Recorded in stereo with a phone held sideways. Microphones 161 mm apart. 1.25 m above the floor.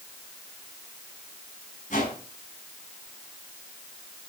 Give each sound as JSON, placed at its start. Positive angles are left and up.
{"t": 1.9, "sound": "a whoosh", "side_deg": 50, "distance_m": 5.0}